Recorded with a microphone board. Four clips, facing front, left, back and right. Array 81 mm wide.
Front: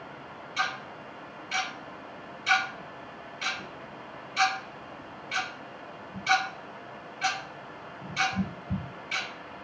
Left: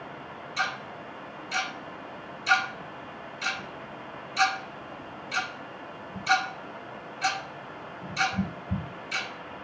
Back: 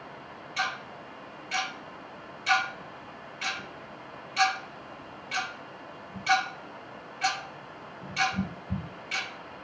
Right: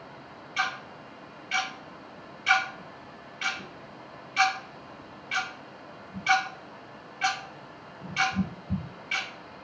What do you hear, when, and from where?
0.6 s ticking: 100° right, 1.5 m